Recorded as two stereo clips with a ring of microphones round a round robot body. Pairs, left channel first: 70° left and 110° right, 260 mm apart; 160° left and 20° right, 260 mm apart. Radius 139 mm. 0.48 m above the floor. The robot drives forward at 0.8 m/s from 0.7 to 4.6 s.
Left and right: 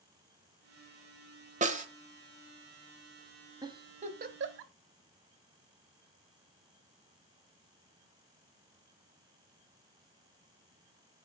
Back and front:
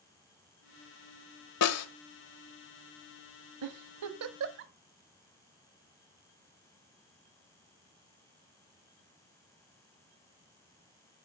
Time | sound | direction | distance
1.6 | a snare drum | 175° right | 1.3 m
3.6 | a giggle | 35° right | 1.3 m